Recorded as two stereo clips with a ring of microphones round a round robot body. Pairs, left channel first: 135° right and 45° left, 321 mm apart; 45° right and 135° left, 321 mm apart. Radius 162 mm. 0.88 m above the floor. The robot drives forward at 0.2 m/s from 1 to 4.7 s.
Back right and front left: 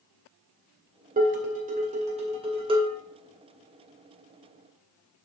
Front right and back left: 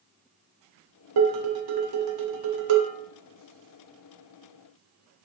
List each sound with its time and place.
1.2 s dishes clattering: 110° left, 1.7 m; by 3.0 s 120° left, 1.9 m